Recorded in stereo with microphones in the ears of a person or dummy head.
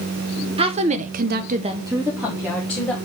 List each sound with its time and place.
0.6 s a woman speaking: 30° right (ahead or behind), 1.3 m; by 3.0 s 5° left (ahead or behind), 2 m